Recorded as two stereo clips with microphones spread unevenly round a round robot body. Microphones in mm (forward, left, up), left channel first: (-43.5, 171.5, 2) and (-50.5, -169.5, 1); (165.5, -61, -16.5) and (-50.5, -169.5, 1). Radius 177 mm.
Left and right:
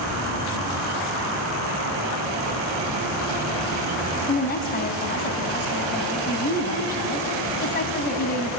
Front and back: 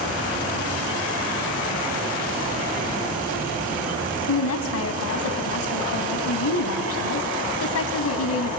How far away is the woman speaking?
About 2.5 m.